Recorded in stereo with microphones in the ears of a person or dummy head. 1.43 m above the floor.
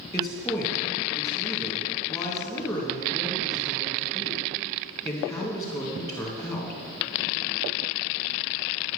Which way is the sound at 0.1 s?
20° left (ahead or behind).